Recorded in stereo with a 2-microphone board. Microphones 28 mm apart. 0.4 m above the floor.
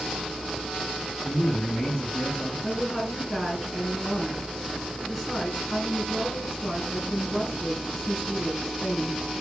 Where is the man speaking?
20° left (ahead or behind), 4 m.